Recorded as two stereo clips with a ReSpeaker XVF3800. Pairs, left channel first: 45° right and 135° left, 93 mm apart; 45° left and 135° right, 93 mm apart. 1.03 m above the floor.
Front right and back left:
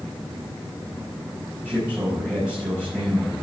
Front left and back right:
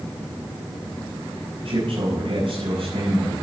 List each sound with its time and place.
1.6 s a man speaking: 145° right, 4.5 m